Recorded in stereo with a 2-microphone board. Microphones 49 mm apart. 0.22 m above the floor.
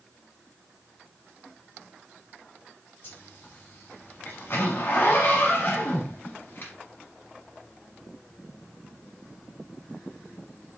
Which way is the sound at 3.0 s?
50° left (ahead or behind).